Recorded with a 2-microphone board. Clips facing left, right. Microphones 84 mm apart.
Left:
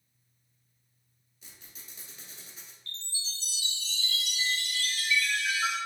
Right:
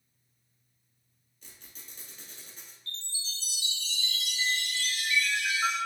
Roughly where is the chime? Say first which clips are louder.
Even; right.